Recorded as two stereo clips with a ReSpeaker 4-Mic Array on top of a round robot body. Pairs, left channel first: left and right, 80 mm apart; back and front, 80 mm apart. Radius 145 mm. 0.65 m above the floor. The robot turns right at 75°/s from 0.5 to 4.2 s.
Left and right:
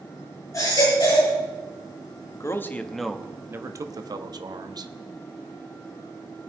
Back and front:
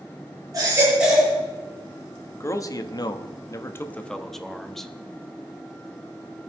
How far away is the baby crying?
About 8 m.